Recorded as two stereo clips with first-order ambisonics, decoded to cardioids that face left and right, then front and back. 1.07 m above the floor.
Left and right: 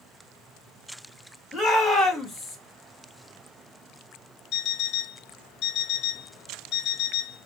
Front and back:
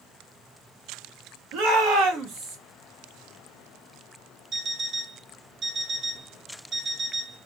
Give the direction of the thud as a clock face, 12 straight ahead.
I don't hear a thud.